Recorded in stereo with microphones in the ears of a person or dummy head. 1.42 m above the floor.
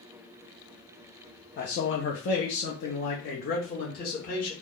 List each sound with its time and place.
1.6 s a man speaking: 40° left (ahead or behind), 0.6 m; by 4.5 s 45° left (ahead or behind), 1.5 m